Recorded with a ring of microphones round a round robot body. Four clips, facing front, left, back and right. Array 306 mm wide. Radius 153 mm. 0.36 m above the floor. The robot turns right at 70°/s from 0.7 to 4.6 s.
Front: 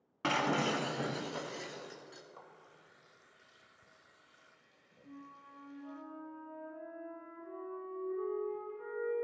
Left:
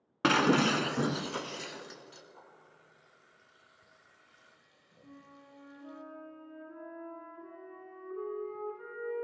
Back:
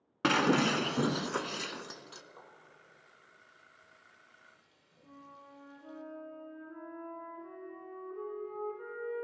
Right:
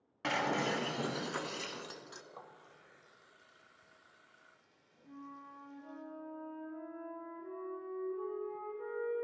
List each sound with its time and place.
0.2 s breaking glass: 120° left, 0.8 m; by 2.2 s 135° right, 0.8 m
2.3 s a running tap: 85° right, 1.0 m; by 6.0 s 75° left, 1.0 m
5.0 s a flute: 125° left, 4 m